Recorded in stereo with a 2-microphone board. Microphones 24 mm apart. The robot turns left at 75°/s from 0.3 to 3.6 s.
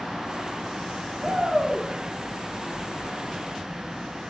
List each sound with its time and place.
1.2 s a shout: 110° right, 6 m; by 1.9 s 160° right, 6 m